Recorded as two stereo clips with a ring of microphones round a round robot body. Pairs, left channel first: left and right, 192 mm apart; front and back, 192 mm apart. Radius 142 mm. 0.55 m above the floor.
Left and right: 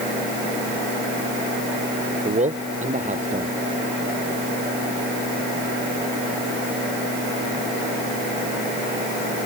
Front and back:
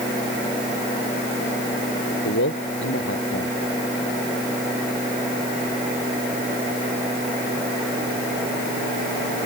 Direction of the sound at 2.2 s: 40° right.